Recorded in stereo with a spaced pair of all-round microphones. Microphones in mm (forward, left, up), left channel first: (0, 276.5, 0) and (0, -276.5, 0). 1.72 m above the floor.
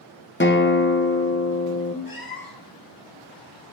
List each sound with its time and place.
0.4 s a guitar: 20° left (ahead or behind), 0.8 m
2.0 s a cat meowing: 40° left (ahead or behind), 1.4 m